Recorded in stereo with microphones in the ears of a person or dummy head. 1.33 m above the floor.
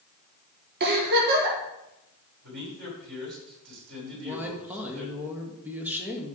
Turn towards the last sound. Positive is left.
turn(degrees=-10)  # may be behind; listen again after turning